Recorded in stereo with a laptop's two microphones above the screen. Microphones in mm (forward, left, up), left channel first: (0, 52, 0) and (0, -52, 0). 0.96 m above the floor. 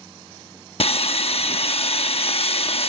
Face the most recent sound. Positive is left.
turn(degrees=70)  # may be behind; listen again after turning